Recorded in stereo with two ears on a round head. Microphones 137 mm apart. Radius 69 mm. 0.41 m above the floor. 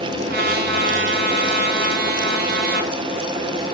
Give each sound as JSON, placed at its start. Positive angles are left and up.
{"t": 0.3, "sound": "a trumpet", "side_deg": -70, "distance_m": 3.5}